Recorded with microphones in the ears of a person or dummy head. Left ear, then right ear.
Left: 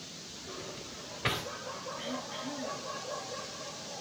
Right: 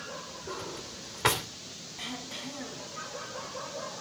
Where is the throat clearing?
80° right, 6.5 m.